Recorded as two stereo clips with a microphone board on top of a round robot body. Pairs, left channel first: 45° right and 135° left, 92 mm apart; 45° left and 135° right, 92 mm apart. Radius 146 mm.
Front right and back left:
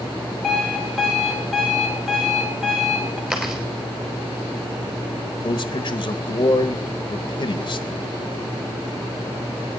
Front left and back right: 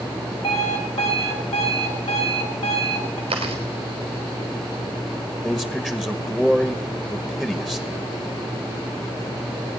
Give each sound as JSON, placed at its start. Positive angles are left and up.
{"t": 0.4, "sound": "an alarm clock", "azimuth_deg": 45, "distance_m": 3.0}
{"t": 3.3, "sound": "chewing", "azimuth_deg": -145, "distance_m": 3.5}
{"t": 5.4, "sound": "a man speaking", "azimuth_deg": -30, "distance_m": 1.0}